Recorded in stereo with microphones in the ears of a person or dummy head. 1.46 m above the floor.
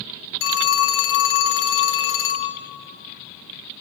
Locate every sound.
0.4 s a phone ringing: 75° left (ahead or behind), 3.5 m